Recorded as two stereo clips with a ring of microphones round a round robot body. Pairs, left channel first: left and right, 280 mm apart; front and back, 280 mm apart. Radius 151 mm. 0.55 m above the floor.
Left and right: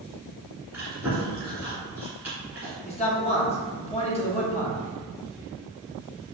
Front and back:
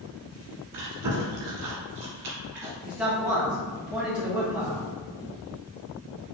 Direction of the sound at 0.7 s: 175° right.